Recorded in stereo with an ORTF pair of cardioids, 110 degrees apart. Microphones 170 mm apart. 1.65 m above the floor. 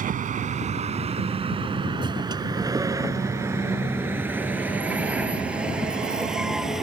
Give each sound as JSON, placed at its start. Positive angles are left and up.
{"t": 0.0, "sound": "a vehicle", "azimuth_deg": -50}